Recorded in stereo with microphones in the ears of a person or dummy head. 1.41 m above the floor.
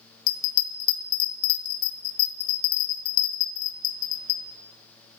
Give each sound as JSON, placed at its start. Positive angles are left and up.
{"t": 0.3, "sound": "a bell", "side_deg": 55, "distance_m": 0.9}